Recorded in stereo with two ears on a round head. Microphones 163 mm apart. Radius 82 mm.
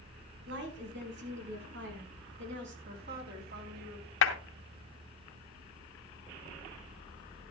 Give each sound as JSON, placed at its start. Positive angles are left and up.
{"t": 0.5, "sound": "a woman speaking", "side_deg": -65, "distance_m": 4.0}
{"t": 2.9, "sound": "a woman speaking", "side_deg": -50, "distance_m": 3.5}
{"t": 4.2, "sound": "a clap", "side_deg": 70, "distance_m": 2.5}